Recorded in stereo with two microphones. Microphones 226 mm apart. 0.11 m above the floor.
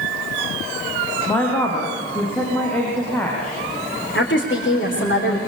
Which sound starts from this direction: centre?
A woman speaking, at 1.3 s.